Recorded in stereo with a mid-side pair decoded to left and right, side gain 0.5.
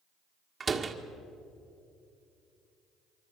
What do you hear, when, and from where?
0.6 s a door slam: 35° right, 1.8 m